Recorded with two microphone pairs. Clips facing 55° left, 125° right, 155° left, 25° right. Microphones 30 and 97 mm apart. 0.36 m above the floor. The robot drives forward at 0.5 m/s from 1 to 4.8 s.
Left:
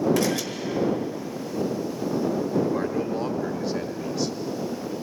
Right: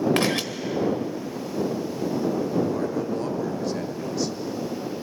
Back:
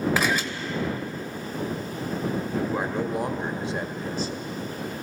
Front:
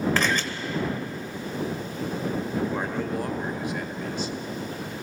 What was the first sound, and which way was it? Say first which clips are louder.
A camera shutter: right 1 dB, back 1 dB; 125° right.